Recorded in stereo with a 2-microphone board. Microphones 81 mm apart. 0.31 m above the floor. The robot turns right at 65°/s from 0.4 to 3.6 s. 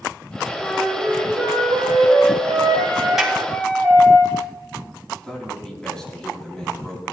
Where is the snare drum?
5° right (ahead or behind), 2 m; by 3.4 s 15° right (ahead or behind), 2 m.